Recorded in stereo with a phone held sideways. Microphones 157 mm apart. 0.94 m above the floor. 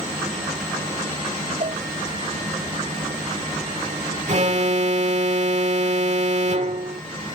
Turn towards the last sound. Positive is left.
turn(degrees=-50)  # may be behind; listen again after turning